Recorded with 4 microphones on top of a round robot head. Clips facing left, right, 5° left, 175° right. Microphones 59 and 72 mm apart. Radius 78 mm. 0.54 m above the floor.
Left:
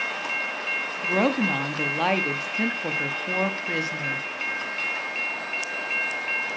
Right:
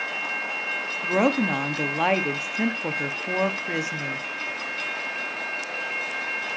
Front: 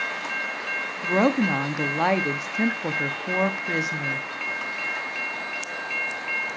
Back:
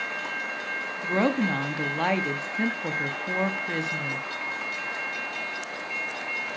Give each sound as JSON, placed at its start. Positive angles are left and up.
{"t": 1.0, "sound": "a woman speaking", "azimuth_deg": -30, "distance_m": 1.0}